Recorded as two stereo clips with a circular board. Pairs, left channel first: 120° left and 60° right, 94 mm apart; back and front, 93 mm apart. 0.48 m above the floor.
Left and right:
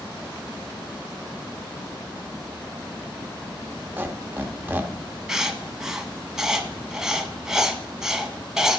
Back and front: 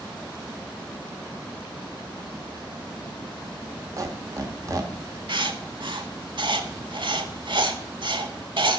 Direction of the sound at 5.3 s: 25° left.